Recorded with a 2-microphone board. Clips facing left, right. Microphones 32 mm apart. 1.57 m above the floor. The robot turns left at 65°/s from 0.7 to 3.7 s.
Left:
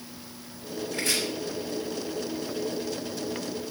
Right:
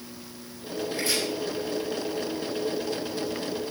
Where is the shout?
I don't hear a shout.